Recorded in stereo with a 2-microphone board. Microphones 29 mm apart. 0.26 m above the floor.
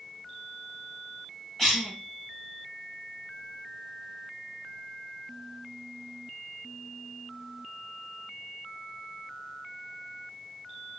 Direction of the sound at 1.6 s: 15° left (ahead or behind).